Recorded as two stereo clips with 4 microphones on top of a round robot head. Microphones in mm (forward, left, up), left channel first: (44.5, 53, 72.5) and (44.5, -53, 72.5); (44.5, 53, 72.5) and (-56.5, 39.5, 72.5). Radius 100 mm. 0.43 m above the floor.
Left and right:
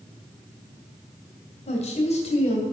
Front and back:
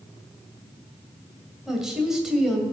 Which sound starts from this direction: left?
A woman speaking, at 1.7 s.